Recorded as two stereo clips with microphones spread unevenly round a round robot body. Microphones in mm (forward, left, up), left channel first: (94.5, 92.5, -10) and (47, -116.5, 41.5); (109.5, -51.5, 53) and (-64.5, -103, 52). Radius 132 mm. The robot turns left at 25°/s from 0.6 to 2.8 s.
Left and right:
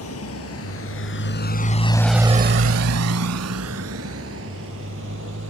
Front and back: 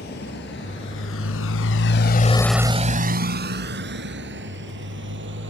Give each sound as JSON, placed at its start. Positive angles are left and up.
{"t": 0.0, "sound": "a motorcycle", "azimuth_deg": 65}